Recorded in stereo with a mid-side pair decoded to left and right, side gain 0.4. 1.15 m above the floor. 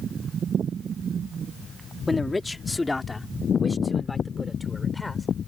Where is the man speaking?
25° left; by 5.3 s 15° left.